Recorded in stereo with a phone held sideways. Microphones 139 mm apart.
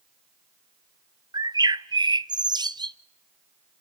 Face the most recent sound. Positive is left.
turn(degrees=-30)  # may be behind; listen again after turning